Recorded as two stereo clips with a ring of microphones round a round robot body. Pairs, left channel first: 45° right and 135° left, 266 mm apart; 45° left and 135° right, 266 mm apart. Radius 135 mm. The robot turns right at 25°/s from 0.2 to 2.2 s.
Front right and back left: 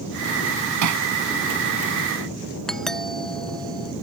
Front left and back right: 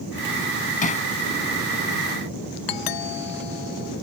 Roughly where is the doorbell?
Ahead left.